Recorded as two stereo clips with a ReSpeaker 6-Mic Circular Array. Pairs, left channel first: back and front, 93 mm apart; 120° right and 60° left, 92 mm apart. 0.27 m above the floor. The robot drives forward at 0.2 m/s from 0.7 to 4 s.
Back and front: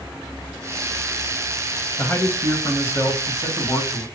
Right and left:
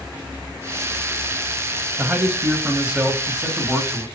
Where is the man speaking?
125° left, 1.4 m; by 4.1 s 140° left, 1.6 m.